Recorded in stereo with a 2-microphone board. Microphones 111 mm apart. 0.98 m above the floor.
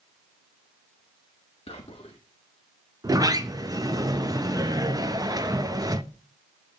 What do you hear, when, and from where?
1.7 s whispering: 60° left (ahead or behind), 1.0 m
3.0 s a sliding door: 30° right (ahead or behind), 0.5 m